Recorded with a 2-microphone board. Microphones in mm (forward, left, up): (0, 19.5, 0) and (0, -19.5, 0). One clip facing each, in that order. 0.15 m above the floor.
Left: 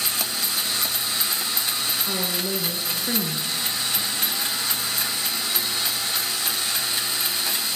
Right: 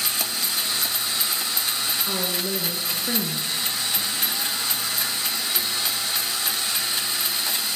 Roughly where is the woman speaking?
Centre.